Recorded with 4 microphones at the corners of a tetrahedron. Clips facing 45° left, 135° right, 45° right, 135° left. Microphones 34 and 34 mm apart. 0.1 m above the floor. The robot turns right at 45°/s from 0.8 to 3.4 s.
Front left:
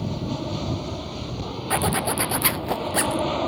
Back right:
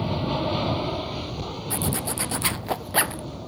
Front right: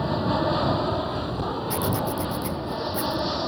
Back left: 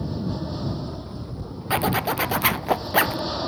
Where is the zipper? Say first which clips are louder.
Front left 7 dB, back left 7 dB; 95° left; by 3.2 s 165° left.